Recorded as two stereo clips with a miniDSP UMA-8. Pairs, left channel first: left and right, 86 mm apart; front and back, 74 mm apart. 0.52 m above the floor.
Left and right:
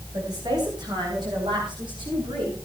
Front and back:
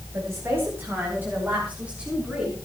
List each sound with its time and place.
0.1 s a woman speaking: 130° right, 4 m; by 2.5 s 105° right, 7 m